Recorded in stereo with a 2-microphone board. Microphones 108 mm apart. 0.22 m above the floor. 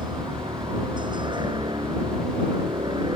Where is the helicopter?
50° right (ahead or behind).